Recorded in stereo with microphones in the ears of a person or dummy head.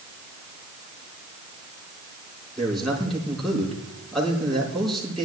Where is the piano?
No piano in this recording.